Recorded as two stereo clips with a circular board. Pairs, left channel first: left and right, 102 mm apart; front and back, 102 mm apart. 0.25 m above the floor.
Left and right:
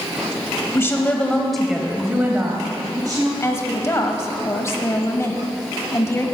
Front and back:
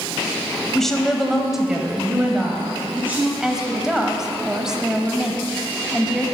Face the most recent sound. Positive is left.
turn(degrees=105)